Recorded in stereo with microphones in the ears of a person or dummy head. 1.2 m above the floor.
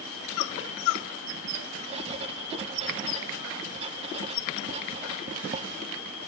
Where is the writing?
35° right (ahead or behind), 1.1 m.